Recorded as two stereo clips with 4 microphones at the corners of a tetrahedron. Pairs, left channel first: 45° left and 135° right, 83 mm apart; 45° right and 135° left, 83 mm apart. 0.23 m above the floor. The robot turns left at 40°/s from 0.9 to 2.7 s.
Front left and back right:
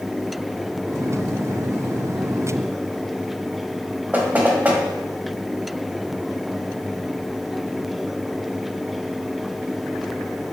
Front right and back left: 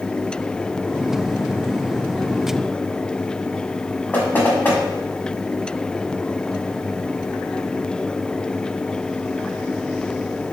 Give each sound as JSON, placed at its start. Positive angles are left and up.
{"t": 4.1, "sound": "knocking", "azimuth_deg": -85, "distance_m": 0.9}